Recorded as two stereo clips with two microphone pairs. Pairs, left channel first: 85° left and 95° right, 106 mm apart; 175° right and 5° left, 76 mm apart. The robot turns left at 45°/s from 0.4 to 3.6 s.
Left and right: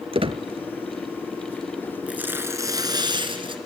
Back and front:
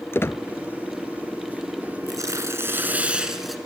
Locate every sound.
0.1 s a squeak: 115° right, 0.7 m
2.1 s tearing paper: 15° right, 2.5 m; by 3.5 s 85° right, 2.5 m